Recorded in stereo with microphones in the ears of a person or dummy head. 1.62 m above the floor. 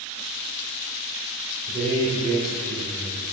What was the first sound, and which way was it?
A man speaking, 40° right (ahead or behind).